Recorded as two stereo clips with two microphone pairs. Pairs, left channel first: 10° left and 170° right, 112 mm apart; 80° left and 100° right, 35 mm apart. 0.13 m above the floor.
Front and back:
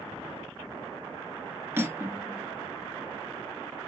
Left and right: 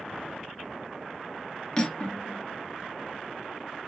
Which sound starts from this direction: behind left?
Cutlery clinking, at 1.8 s.